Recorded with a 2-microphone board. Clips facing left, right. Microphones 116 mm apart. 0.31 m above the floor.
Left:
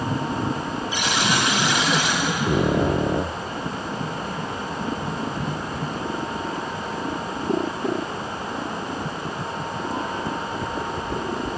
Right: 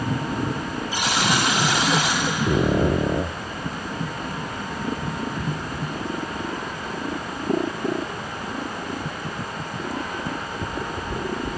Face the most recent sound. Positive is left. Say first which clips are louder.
# right 1 dB
turn(degrees=-40)  # may be behind; listen again after turning